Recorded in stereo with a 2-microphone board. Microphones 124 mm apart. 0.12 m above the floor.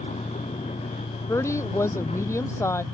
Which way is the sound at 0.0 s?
65° left (ahead or behind).